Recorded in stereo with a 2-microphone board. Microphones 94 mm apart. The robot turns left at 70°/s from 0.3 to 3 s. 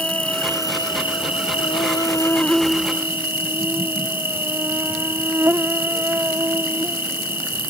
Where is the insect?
165° left; by 7.7 s 25° right.